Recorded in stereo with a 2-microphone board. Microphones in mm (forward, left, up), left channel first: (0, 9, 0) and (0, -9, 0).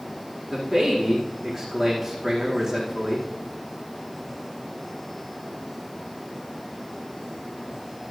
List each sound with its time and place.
0.5 s a man speaking: 25° right (ahead or behind), 4.5 m